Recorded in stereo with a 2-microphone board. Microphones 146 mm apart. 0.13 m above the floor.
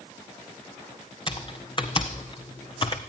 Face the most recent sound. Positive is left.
turn(degrees=35)  # may be behind; listen again after turning